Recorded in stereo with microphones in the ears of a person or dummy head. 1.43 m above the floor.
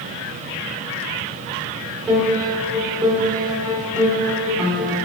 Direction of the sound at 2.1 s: Centre (ahead or behind).